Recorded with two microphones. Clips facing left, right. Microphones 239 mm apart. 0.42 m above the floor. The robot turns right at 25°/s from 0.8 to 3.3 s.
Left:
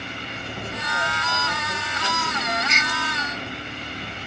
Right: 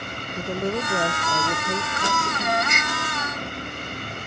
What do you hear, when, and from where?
0.4 s a woman speaking: 60° right; by 2.6 s 20° right
2.7 s a gasp: 55° right (ahead or behind); by 2.9 s 60° right (ahead or behind)